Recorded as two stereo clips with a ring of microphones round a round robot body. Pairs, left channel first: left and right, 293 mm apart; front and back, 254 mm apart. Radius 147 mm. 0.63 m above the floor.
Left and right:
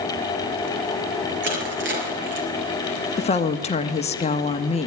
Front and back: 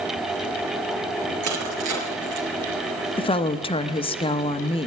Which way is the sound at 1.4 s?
140° right.